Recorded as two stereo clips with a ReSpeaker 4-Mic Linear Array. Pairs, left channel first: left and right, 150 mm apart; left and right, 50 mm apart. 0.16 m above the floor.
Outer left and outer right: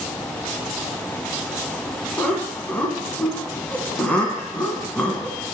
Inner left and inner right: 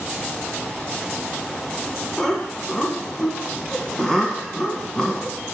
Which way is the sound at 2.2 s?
10° left (ahead or behind).